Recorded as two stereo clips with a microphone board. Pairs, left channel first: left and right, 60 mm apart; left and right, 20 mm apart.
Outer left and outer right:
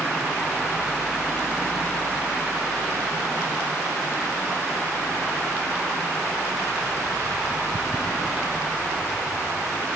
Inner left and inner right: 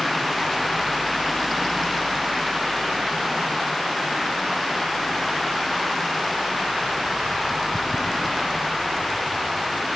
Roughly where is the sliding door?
I don't hear a sliding door.